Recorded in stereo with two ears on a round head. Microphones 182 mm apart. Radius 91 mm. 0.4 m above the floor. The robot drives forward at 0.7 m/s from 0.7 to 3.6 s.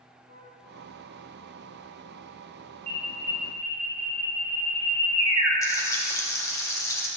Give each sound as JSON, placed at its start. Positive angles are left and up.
{"t": 0.3, "sound": "a flute", "side_deg": 70, "distance_m": 5.5}
{"t": 2.9, "sound": "an alarm", "side_deg": -20, "distance_m": 5.0}
{"t": 5.6, "sound": "frying", "side_deg": 15, "distance_m": 2.5}